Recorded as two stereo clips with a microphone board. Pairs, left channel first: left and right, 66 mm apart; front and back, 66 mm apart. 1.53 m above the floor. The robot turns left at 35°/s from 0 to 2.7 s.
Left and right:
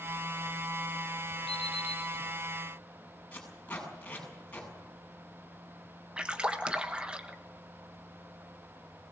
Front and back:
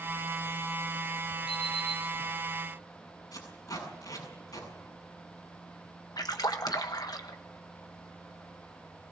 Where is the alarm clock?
10° right, 7.5 m; by 2.0 s 25° right, 7.5 m.